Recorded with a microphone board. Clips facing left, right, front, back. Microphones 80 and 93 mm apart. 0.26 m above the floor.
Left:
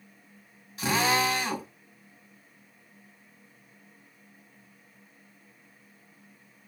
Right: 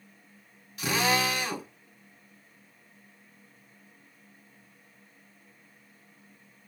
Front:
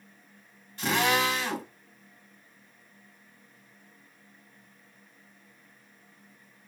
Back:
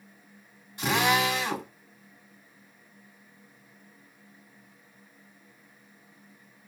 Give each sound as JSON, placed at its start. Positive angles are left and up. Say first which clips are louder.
{"t": 0.8, "sound": "a drill", "louder": "left 1 dB, back 1 dB", "azimuth_deg": 115, "distance_m": 1.5}